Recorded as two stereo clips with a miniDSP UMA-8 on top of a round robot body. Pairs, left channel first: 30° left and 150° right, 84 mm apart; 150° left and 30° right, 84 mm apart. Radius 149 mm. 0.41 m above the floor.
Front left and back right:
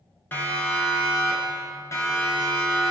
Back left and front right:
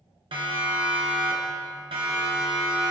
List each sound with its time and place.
0.3 s a siren: 40° right, 8 m; by 2.9 s 20° right, 9 m